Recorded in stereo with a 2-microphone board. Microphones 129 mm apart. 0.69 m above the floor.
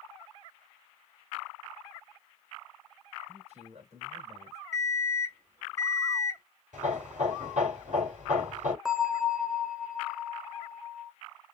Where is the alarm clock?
75° right (ahead or behind), 0.9 m.